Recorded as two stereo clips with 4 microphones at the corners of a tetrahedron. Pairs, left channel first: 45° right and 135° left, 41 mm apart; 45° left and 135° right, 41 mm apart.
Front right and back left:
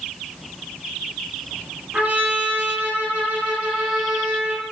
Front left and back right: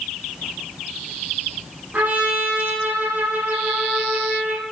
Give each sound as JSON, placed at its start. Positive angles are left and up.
{"t": 1.9, "sound": "a trumpet", "azimuth_deg": -175, "distance_m": 5.5}